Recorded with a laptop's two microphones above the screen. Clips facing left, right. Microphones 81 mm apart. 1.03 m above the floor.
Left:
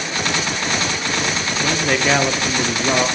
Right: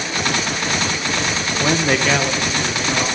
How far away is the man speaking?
About 0.9 m.